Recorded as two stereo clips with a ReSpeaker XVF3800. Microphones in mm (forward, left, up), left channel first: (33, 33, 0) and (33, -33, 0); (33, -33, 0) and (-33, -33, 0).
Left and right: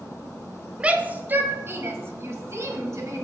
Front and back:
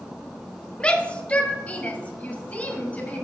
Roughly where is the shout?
Ahead right.